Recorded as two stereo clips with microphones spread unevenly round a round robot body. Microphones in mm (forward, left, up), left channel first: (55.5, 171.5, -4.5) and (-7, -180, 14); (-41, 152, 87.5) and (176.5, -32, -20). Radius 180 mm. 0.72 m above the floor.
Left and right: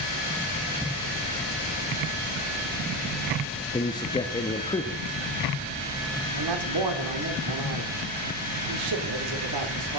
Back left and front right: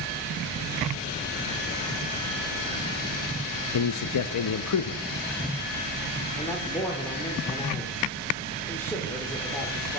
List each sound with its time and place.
3.7 s a man speaking: 145° left, 0.5 m
6.4 s a man speaking: 130° right, 1.6 m